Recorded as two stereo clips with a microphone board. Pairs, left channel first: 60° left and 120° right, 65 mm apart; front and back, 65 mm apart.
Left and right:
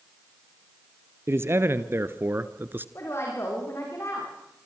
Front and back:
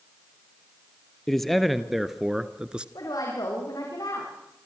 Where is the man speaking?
85° right, 1.6 m; by 2.9 s 120° right, 1.2 m.